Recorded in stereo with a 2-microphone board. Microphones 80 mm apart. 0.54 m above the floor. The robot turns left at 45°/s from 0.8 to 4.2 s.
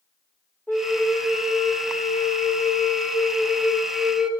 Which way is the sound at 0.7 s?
145° left.